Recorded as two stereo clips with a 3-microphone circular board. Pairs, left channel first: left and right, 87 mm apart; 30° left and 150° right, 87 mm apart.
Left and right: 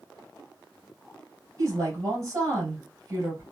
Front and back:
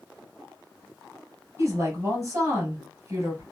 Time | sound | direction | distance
1.6 | a woman speaking | 125° right | 2 m